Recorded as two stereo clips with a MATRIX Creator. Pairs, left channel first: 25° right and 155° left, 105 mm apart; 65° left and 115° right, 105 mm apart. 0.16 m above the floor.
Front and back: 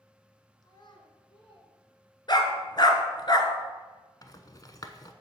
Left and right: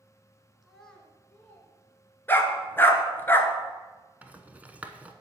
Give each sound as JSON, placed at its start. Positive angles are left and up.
{"t": 0.6, "sound": "a child speaking", "azimuth_deg": -25, "distance_m": 1.4}
{"t": 2.3, "sound": "a dog barking", "azimuth_deg": 5, "distance_m": 1.0}
{"t": 4.2, "sound": "a rattle", "azimuth_deg": -45, "distance_m": 0.7}